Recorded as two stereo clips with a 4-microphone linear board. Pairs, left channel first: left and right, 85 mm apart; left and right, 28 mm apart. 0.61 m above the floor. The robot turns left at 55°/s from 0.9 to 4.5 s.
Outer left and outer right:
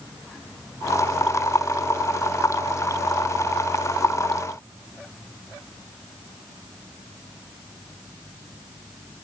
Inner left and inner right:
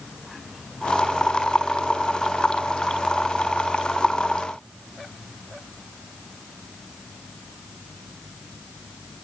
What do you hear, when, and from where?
Only background noise.